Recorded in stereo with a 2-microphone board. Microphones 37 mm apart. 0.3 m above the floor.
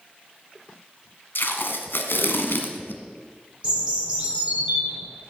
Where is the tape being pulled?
70° left (ahead or behind), 1.3 m.